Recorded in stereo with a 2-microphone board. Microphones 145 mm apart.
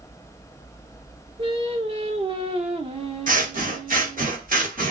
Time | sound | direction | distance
1.4 | singing | 40° right (ahead or behind) | 0.6 m
3.3 | scissors | 75° right (ahead or behind) | 0.9 m